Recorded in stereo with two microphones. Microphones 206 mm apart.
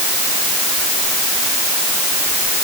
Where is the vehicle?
I don't hear a vehicle.